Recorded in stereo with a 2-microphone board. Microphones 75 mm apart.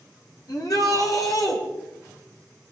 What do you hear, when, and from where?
0.5 s a shout: 55° left (ahead or behind), 4.5 m